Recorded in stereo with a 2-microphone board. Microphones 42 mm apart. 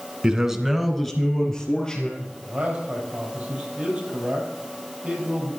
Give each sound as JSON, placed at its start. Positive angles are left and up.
{"t": 0.2, "sound": "a man speaking", "side_deg": -20, "distance_m": 1.1}
{"t": 2.2, "sound": "a man speaking", "side_deg": -25, "distance_m": 4.0}